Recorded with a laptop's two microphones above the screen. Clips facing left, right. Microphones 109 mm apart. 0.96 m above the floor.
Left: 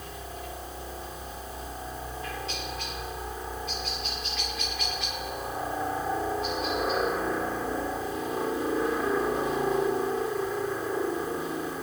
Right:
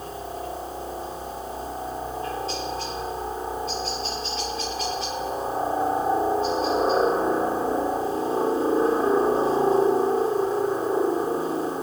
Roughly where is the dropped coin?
No dropped coin in this recording.